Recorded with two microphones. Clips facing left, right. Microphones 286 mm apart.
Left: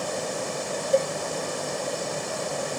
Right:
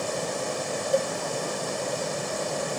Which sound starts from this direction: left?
A cowbell, at 0.9 s.